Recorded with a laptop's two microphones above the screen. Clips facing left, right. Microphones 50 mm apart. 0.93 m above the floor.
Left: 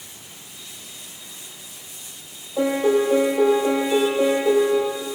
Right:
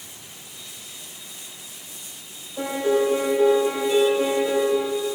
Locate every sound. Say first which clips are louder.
2.6 s a piano: left 3 dB; 75° left (ahead or behind), 9 m